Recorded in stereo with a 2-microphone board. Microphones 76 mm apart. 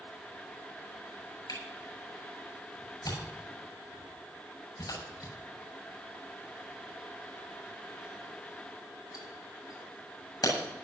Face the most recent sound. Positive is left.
turn(degrees=60)  # may be behind; listen again after turning